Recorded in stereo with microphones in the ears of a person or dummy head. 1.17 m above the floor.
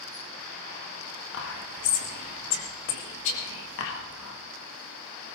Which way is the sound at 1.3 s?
65° left (ahead or behind).